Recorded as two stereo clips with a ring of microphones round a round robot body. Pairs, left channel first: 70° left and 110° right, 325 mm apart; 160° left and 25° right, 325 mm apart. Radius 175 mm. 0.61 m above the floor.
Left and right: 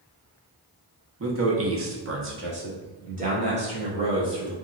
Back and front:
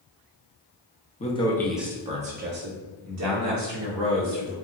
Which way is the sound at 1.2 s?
140° right.